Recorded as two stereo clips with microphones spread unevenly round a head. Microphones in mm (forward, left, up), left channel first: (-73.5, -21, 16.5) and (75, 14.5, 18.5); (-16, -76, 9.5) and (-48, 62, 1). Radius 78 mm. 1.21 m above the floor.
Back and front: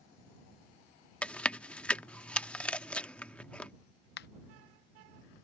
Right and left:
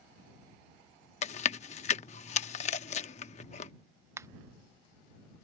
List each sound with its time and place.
1.2 s chewing: 85° right
4.2 s a finger snap: 175° left